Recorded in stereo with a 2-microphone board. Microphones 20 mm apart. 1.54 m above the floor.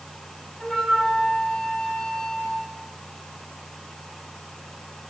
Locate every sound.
0.6 s a flute: 45° left (ahead or behind), 6 m